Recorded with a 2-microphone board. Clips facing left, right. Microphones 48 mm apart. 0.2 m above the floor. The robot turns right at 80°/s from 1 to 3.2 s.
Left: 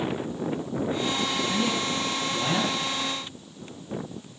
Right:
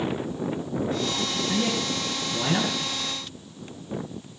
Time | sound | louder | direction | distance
1.5 | a man speaking | even | 45° right (ahead or behind) | 2.5 m